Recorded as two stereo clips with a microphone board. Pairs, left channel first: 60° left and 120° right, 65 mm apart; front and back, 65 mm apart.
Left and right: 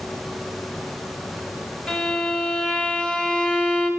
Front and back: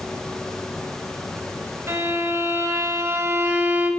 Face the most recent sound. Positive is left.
turn(degrees=135)